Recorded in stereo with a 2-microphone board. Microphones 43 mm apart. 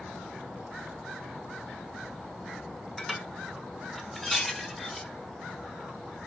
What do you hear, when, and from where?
3.0 s dishes clattering: centre (ahead or behind), 0.7 m